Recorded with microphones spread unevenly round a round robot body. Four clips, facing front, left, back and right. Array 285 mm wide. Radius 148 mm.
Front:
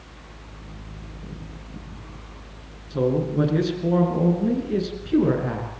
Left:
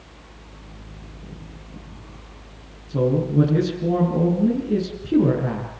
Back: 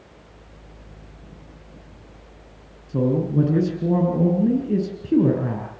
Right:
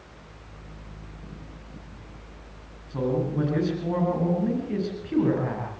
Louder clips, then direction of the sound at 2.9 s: Left 6 dB, back 1 dB; 150° left.